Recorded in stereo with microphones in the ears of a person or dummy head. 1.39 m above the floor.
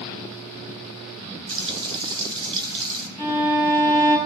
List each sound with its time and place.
1.5 s frying: 25° right (ahead or behind), 1.4 m
3.2 s a violin: 5° right (ahead or behind), 2 m